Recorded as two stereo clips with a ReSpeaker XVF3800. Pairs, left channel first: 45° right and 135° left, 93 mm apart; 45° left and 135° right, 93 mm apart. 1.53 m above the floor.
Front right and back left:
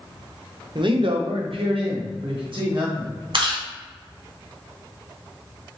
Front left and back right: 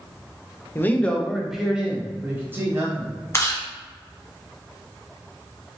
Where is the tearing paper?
I don't hear tearing paper.